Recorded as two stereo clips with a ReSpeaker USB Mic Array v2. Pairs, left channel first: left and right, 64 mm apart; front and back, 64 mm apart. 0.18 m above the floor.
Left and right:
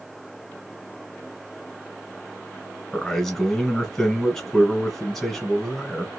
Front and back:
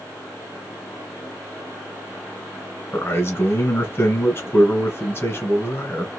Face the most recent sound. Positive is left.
turn(degrees=10)